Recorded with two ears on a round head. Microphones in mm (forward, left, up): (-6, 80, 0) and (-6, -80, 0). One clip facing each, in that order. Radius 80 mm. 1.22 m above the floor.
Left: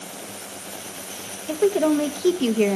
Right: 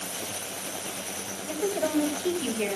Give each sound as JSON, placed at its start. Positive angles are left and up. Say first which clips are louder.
{"t": 1.5, "sound": "a woman speaking", "louder": "left 8 dB", "side_deg": 65, "distance_m": 1.0}